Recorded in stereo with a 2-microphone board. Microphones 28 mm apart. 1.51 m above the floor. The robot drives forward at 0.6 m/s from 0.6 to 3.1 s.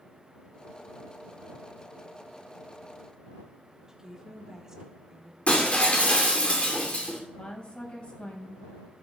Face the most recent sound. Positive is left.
turn(degrees=40)  # may be behind; listen again after turning